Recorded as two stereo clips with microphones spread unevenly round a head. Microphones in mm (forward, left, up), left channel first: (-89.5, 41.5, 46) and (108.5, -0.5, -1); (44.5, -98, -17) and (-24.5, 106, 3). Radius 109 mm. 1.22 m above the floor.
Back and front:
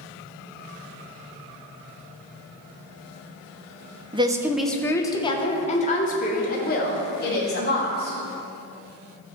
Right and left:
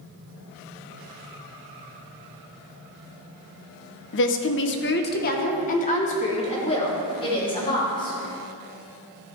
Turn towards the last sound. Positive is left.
turn(degrees=-140)